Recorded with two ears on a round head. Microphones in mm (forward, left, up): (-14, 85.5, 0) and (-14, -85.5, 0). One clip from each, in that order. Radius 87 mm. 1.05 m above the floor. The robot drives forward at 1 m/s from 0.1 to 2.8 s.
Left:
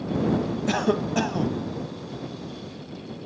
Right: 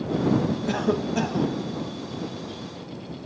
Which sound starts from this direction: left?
A cough, at 0.7 s.